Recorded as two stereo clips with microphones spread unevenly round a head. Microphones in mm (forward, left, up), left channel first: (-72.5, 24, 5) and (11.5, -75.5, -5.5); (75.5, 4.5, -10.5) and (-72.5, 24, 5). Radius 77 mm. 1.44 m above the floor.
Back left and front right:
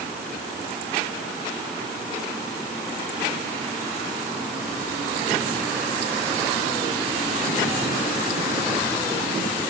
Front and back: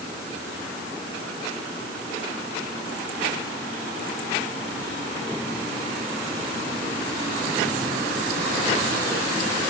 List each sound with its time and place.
Only background noise.